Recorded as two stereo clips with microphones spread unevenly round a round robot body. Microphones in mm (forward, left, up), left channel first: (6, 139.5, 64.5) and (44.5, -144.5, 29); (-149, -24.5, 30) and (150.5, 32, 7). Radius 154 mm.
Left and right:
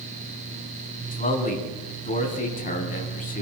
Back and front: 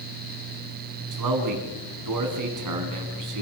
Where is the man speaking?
35° left, 4 m.